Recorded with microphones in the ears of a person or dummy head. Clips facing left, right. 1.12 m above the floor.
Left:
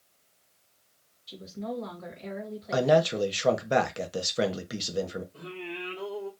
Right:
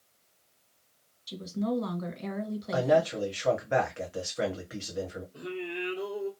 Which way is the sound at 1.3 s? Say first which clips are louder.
Right 5 dB; 55° right (ahead or behind).